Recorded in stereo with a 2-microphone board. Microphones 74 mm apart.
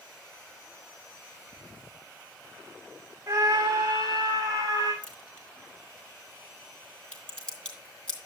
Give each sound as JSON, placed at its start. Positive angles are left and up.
{"t": 3.3, "sound": "a scream", "side_deg": -45, "distance_m": 2.0}
{"t": 5.0, "sound": "a crack", "side_deg": 10, "distance_m": 4.0}